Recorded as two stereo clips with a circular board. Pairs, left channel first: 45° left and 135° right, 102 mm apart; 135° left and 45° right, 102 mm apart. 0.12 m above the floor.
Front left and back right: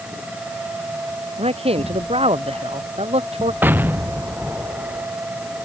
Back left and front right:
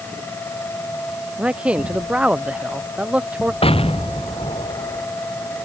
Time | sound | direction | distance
1.4 | a man speaking | 125° right | ?
3.6 | an explosion | 155° left | ?